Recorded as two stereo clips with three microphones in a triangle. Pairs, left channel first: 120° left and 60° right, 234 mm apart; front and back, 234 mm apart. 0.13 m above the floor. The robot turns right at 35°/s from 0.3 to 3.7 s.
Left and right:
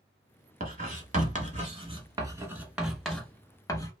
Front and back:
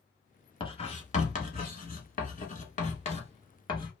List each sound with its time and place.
0.6 s writing: 55° right, 0.7 m; by 3.9 s 55° left, 0.7 m